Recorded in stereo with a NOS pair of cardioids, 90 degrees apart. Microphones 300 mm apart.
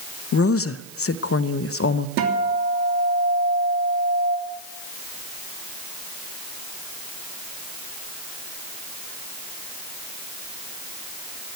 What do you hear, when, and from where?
0.3 s a woman speaking: 50° left, 0.7 m
2.2 s a guitar: 70° right, 3 m